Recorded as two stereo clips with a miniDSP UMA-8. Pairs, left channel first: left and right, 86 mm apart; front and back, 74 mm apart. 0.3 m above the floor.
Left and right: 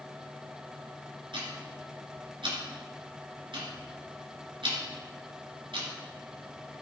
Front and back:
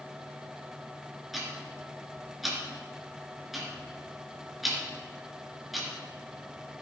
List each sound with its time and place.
1.3 s ticking: 90° right, 3 m